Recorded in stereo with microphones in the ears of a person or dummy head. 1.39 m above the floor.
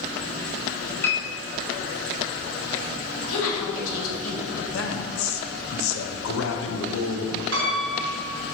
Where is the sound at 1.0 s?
10° left (ahead or behind), 1.1 m.